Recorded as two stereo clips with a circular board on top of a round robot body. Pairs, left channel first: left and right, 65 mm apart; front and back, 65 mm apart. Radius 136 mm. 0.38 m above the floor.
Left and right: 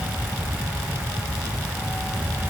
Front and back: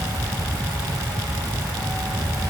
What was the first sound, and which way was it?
Only background noise.